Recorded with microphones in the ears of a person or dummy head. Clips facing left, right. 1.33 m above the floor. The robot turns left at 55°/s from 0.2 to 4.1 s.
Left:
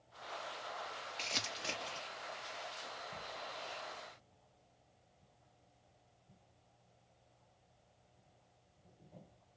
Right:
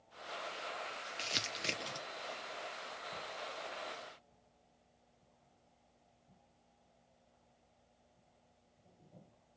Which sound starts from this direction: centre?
Crumpling, at 1.2 s.